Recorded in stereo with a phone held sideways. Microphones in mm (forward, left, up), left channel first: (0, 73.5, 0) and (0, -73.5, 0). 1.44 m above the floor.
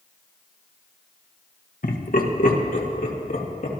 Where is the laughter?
70° left (ahead or behind), 1.4 m.